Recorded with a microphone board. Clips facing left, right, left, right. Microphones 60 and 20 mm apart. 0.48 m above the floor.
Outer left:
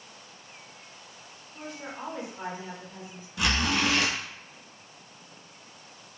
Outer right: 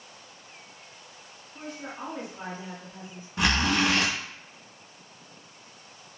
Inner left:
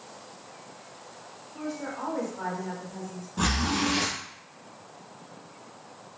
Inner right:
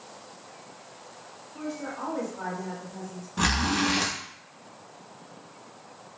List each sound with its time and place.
1.5 s a woman speaking: 20° left (ahead or behind), 1.6 m
3.4 s a zipper: 40° right (ahead or behind), 1.0 m